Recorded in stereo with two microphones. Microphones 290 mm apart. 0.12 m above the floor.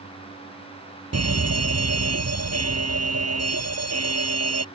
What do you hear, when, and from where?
1.1 s a fire alarm: 55° right (ahead or behind)